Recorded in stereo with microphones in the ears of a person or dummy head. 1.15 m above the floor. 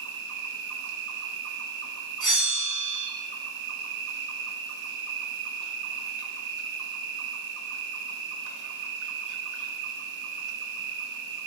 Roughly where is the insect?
Right.